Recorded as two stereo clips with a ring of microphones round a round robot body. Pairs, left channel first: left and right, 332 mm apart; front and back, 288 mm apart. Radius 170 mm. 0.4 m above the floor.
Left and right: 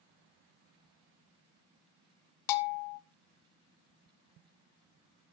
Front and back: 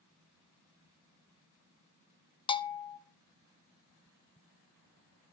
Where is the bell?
75° left, 0.6 m.